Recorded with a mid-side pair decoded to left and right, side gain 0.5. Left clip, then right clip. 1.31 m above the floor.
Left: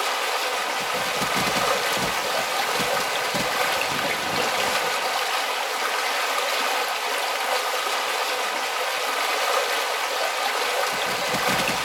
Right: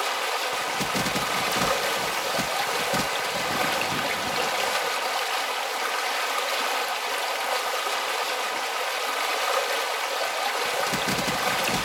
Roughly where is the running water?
Ahead.